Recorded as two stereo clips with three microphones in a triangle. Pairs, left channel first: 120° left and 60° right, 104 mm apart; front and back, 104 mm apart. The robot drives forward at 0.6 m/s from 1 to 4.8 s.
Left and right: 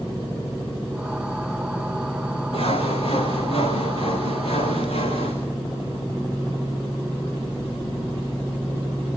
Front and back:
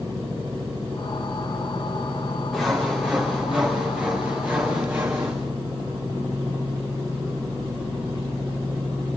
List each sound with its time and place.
2.5 s sawing: 95° left, 6 m; by 5.3 s 110° left, 6.5 m